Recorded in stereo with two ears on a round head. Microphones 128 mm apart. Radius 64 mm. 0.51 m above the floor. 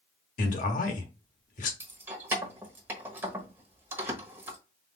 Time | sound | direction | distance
0.4 | a man speaking | 60° left (ahead or behind) | 1.1 m
1.8 | keys jangling | 15° right (ahead or behind) | 1.2 m